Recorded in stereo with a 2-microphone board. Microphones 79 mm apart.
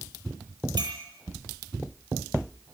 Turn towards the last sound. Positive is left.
turn(degrees=-75)  # may be behind; listen again after turning